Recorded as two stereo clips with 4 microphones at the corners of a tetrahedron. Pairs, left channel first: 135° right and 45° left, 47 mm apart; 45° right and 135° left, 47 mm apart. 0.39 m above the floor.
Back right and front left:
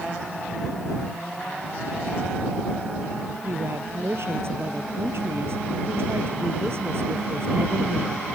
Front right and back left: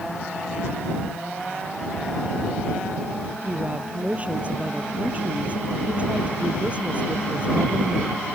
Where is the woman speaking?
75° left.